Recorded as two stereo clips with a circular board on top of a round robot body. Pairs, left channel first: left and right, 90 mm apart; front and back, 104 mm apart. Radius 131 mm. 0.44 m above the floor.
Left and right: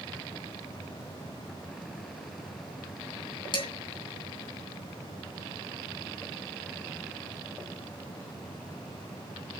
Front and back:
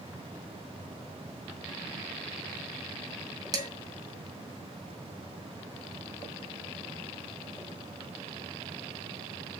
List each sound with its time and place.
3.5 s dishes clattering: 125° left, 3 m